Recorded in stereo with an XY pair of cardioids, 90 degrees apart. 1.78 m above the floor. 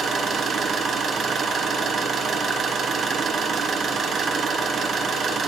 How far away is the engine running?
About 1.4 m.